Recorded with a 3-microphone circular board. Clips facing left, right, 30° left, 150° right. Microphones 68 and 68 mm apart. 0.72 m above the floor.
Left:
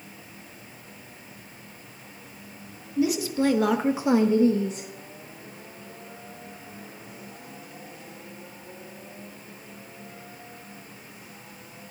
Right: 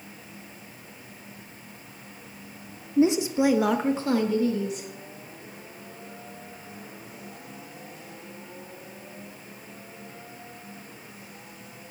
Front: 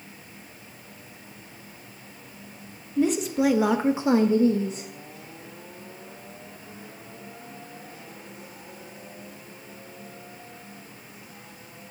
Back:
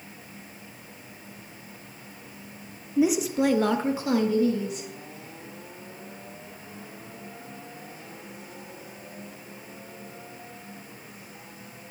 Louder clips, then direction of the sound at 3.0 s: Right 3 dB, even; 80° right.